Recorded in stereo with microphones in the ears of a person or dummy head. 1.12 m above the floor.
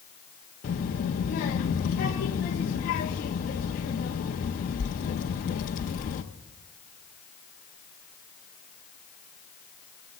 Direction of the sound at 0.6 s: 45° left (ahead or behind).